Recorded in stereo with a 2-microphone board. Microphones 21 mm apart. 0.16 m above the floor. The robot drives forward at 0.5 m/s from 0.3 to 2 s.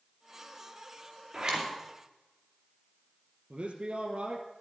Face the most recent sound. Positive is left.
turn(degrees=-60)  # may be behind; listen again after turning